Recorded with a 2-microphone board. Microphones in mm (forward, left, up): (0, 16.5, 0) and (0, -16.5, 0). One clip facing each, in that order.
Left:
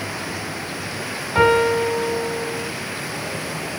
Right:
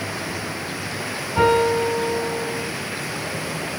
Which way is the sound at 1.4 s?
70° left (ahead or behind).